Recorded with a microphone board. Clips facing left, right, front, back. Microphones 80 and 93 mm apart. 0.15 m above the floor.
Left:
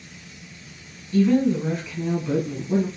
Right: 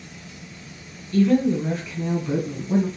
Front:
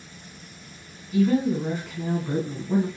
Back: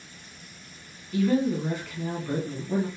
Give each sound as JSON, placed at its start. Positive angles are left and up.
{"t": 1.1, "sound": "a woman speaking", "azimuth_deg": 60, "distance_m": 1.4}